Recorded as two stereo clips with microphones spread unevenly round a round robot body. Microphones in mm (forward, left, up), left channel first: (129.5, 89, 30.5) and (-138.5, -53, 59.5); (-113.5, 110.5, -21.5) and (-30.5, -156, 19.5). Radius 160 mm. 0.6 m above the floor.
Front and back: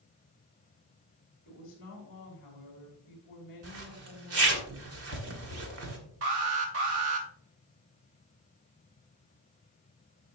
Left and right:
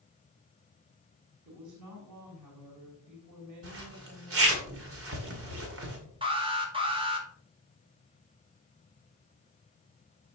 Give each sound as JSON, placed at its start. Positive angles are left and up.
{"t": 1.4, "sound": "a woman speaking", "azimuth_deg": -30, "distance_m": 4.5}
{"t": 3.6, "sound": "a zipper", "azimuth_deg": -110, "distance_m": 2.0}
{"t": 6.2, "sound": "an alarm", "azimuth_deg": -145, "distance_m": 2.5}